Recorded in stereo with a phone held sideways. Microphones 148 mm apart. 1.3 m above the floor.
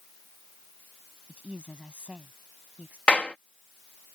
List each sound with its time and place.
1.3 s a woman speaking: 5° right (ahead or behind)
3.1 s a clap: 10° left (ahead or behind)